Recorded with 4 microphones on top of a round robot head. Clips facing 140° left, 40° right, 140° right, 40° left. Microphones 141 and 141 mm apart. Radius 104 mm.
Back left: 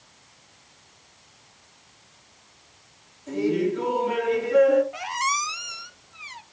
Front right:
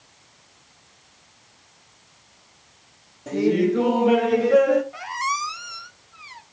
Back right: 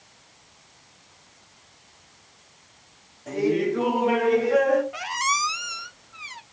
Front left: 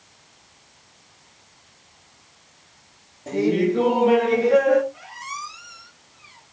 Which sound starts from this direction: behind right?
A squeak, at 4.9 s.